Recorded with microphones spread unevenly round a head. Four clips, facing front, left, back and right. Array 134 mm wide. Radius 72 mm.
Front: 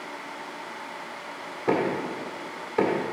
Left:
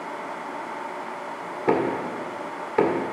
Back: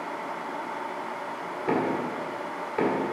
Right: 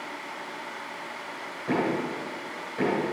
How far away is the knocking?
About 1.6 m.